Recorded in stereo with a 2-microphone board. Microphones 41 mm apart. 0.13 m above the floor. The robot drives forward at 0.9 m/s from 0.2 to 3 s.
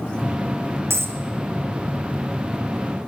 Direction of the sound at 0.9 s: 90° right.